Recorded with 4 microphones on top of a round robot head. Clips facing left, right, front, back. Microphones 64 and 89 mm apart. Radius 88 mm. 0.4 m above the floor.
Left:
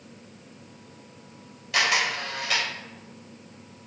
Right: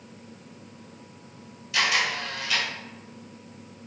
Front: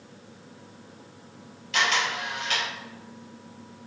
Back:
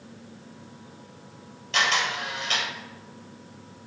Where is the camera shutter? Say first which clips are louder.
Left 1 dB, even; 125° left, 3 m.